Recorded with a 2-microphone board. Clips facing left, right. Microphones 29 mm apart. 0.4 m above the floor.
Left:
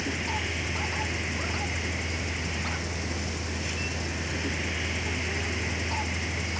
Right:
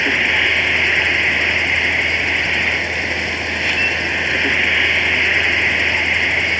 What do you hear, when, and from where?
0.0 s an insect: 55° right (ahead or behind)